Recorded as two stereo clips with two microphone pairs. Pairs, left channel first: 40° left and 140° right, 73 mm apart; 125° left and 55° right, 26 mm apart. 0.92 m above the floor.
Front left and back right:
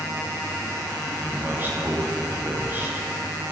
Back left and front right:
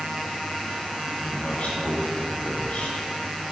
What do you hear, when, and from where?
1.2 s a man speaking: 160° left, 1.4 m